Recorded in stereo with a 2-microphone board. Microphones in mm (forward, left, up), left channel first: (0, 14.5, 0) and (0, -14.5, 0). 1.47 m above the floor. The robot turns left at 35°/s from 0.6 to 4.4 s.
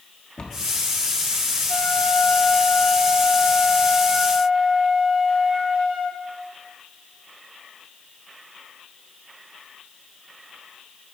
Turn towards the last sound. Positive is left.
turn(degrees=-10)